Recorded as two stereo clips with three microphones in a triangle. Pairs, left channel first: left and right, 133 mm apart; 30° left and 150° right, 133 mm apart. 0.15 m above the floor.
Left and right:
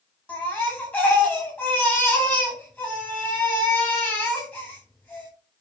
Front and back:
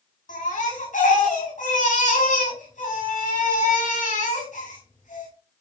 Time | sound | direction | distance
0.3 | a baby crying | 15° left | 10 m